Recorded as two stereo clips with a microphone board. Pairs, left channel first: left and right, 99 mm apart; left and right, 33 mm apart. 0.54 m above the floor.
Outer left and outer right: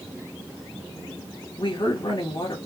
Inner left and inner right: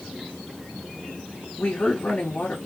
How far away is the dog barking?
No dog barking in this recording.